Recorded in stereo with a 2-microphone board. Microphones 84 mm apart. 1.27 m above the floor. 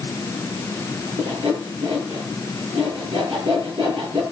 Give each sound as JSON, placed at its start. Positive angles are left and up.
{"t": 1.2, "sound": "sawing", "side_deg": -70, "distance_m": 8.5}